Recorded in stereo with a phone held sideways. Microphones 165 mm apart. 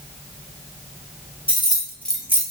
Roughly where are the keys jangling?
Left.